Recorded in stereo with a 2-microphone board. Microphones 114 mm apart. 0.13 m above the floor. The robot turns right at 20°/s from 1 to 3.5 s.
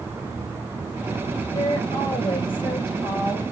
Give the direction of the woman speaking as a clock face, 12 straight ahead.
8 o'clock.